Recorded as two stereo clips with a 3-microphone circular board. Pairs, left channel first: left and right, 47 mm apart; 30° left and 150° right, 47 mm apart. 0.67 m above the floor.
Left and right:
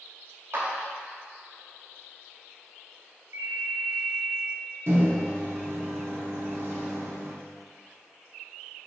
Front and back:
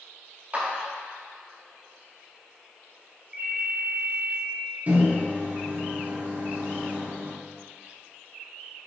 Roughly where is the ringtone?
Right.